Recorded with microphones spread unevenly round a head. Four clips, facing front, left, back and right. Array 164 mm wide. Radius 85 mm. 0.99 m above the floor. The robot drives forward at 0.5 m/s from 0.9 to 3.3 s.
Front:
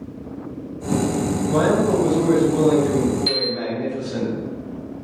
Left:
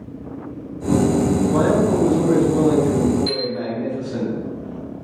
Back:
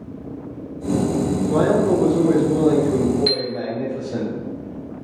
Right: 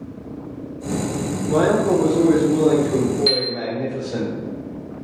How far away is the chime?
About 1.0 m.